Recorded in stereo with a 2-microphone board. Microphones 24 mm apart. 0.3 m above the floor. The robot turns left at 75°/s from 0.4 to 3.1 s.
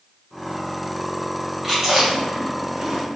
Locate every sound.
1.6 s chewing: 10° right (ahead or behind), 2 m; by 3.0 s 50° right (ahead or behind), 2 m